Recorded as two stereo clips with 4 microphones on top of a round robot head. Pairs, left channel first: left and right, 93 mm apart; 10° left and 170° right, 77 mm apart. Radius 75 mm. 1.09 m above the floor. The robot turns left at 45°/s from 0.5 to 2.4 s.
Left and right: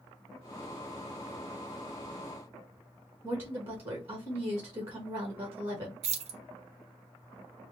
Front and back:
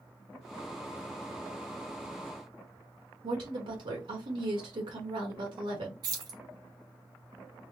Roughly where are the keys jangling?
Behind right.